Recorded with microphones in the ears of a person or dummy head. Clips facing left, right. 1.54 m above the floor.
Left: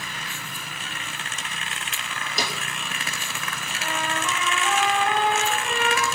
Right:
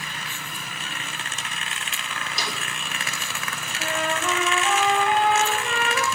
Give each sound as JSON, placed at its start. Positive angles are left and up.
{"t": 2.4, "sound": "a snare drum", "side_deg": 50, "distance_m": 3.0}
{"t": 3.8, "sound": "a trumpet", "side_deg": -60, "distance_m": 7.5}